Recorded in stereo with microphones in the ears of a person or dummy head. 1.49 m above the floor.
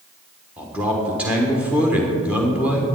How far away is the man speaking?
About 1.2 m.